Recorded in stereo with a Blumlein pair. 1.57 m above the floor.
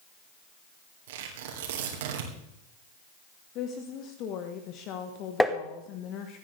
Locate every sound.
1.1 s tearing paper: 55° right, 3 m
3.5 s a woman speaking: 35° left, 1.5 m
5.4 s tapping: straight ahead, 1.3 m